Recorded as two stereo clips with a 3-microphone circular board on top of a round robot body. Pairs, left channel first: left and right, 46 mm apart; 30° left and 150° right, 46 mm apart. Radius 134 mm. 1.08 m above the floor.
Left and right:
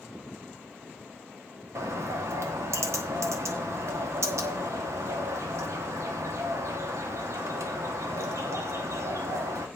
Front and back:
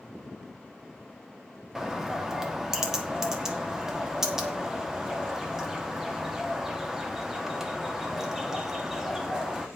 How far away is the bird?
About 1.1 m.